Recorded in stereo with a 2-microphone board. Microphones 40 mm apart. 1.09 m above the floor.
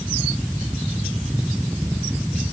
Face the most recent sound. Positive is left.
No sound to turn to.